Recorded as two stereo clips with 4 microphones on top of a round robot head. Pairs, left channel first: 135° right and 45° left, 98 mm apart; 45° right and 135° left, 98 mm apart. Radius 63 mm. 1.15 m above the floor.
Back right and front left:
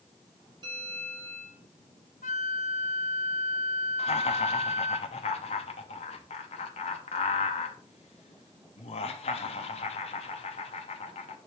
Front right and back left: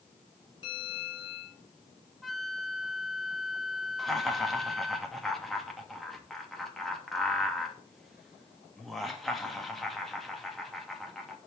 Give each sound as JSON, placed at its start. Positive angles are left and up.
{"t": 0.6, "sound": "a bell", "azimuth_deg": 0, "distance_m": 5.0}
{"t": 2.2, "sound": "a flute", "azimuth_deg": -135, "distance_m": 0.8}
{"t": 4.0, "sound": "laughter", "azimuth_deg": -135, "distance_m": 2.5}